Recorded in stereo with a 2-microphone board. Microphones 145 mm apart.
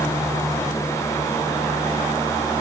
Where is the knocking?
I don't hear knocking.